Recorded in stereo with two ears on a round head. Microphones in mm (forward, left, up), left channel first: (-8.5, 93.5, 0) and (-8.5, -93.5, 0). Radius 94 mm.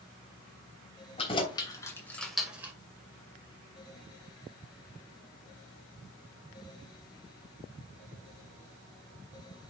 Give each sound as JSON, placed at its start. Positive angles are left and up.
{"t": 1.2, "sound": "keys jangling", "side_deg": 25, "distance_m": 3.0}